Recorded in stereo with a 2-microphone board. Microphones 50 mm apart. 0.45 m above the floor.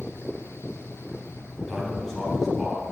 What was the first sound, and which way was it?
A man speaking, centre (ahead or behind).